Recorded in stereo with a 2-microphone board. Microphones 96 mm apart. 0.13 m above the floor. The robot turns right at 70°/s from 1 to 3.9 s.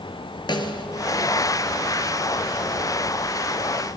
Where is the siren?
I don't hear a siren.